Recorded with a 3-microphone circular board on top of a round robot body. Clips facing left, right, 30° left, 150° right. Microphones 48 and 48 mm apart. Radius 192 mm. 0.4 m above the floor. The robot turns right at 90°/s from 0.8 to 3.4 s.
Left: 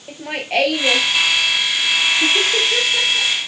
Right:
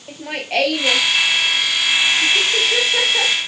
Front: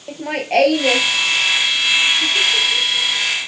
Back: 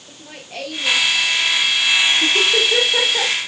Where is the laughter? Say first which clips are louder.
Left 1 dB, front 17 dB; 5° left; by 3.4 s 125° right.